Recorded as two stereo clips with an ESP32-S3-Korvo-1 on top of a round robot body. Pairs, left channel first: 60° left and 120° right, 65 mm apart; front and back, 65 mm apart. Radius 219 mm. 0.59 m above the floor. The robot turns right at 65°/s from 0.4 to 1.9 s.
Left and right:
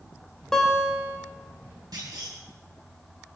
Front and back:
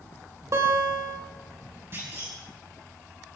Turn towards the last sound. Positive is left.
turn(degrees=-125)